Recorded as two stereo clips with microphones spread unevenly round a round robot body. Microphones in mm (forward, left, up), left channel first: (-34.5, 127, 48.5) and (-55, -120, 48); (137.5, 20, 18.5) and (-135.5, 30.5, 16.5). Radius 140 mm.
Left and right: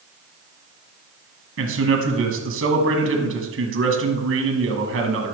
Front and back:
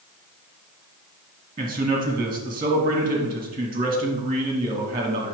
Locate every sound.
1.6 s a man speaking: 110° right, 1.5 m